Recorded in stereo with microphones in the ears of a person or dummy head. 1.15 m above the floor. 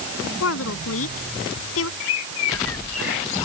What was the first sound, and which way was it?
A woman speaking, 80° left.